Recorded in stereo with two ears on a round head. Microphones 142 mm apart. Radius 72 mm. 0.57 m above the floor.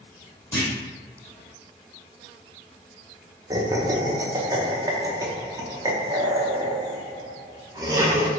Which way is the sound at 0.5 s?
10° left (ahead or behind).